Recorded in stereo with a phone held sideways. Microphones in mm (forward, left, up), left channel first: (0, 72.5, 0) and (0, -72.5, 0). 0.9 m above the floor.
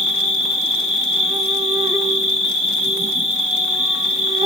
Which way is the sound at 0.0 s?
45° right (ahead or behind).